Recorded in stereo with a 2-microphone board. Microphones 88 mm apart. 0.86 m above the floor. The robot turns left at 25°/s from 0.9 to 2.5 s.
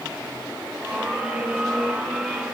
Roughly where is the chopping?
No chopping in this recording.